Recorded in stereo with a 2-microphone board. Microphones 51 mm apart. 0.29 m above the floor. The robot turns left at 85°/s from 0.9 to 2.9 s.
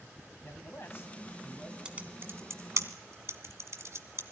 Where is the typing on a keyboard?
15° right (ahead or behind), 1.3 m; by 4.2 s 65° right (ahead or behind), 1.3 m.